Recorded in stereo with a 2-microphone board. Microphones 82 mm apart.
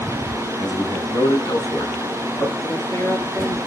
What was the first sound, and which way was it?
A man speaking, 40° left (ahead or behind).